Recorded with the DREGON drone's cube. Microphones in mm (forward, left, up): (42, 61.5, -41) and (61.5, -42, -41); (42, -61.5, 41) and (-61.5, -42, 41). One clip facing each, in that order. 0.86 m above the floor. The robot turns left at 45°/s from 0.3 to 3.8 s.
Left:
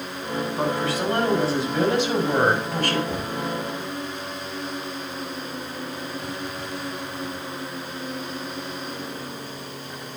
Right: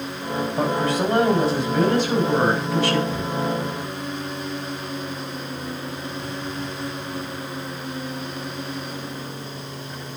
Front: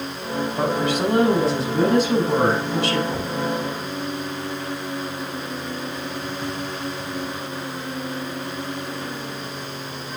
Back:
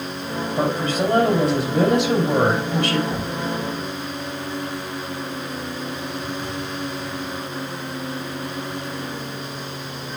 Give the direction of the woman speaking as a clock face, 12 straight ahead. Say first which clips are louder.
Right 3 dB, back 1 dB; 4 o'clock.